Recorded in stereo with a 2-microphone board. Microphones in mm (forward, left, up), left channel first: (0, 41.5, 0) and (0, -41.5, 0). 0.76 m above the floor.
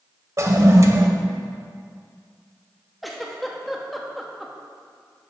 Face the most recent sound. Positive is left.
turn(degrees=0)  # may be behind; listen again after turning